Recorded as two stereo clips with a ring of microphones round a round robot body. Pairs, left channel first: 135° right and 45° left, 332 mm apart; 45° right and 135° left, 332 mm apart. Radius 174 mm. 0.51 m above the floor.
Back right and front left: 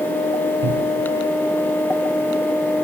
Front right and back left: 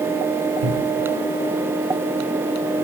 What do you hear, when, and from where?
0.6 s a cupboard door: 125° left, 2 m